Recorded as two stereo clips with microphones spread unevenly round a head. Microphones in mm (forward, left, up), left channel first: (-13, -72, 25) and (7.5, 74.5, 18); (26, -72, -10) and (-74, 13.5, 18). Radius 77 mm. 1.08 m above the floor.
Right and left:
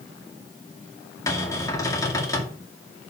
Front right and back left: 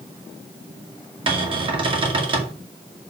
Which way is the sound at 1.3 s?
170° right.